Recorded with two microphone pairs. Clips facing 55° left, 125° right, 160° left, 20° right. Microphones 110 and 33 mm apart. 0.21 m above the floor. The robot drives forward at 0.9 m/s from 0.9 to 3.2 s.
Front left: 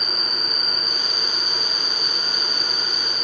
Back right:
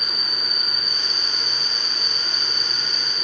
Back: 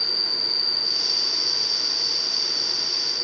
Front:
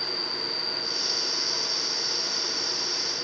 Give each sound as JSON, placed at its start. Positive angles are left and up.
{"t": 0.0, "sound": "an insect", "azimuth_deg": -160}